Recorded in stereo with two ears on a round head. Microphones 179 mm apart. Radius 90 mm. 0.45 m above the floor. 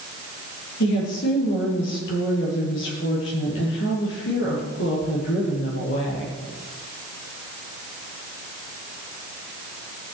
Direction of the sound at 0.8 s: 70° left (ahead or behind).